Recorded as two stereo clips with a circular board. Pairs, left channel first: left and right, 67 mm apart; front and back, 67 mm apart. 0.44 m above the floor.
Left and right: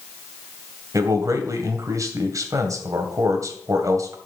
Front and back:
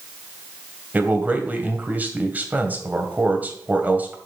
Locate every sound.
0.9 s a man speaking: 115° right, 2 m